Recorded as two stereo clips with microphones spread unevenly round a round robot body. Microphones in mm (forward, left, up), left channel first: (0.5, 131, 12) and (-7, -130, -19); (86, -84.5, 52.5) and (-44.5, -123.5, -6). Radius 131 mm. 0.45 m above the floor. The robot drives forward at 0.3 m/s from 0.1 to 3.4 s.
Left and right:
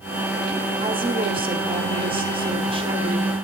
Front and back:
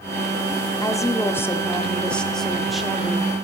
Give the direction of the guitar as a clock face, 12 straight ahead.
I don't hear a guitar.